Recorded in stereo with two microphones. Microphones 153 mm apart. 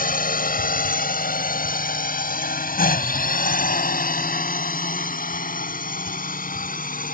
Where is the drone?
65° left (ahead or behind); by 7.1 s 60° left (ahead or behind).